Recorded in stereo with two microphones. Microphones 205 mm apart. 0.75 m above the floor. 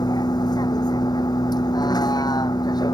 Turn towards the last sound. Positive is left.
turn(degrees=20)  # may be behind; listen again after turning